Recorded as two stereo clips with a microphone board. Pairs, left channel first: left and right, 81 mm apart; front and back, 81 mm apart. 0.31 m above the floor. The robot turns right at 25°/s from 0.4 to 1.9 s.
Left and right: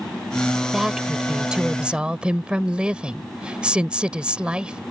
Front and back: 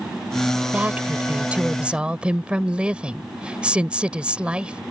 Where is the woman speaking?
165° right; by 4.8 s 140° right.